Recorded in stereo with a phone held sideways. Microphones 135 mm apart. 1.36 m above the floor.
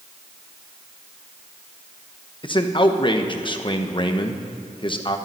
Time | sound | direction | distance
2.4 | a man speaking | 40° left (ahead or behind) | 1.1 m